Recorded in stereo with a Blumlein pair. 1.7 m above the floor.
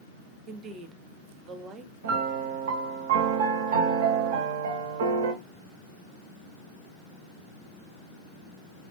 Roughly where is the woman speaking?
Ahead right.